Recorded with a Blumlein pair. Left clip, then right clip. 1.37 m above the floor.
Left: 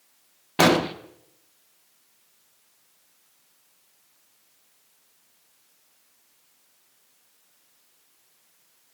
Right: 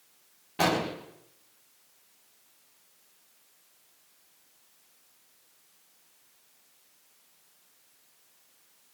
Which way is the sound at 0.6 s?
30° left.